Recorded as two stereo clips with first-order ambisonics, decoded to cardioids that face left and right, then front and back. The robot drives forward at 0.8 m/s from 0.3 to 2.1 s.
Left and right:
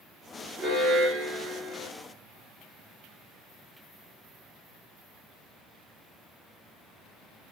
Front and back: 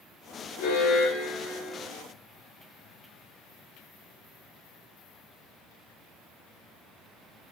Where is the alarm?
25° right, 1.4 m; by 1.9 s 80° right, 0.7 m.